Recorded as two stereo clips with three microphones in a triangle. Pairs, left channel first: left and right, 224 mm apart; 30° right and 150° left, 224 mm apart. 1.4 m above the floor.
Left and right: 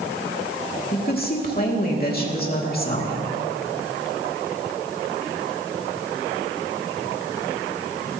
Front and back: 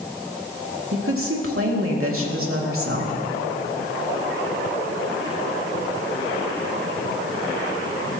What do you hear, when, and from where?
0.9 s a woman speaking: 135° left, 2.5 m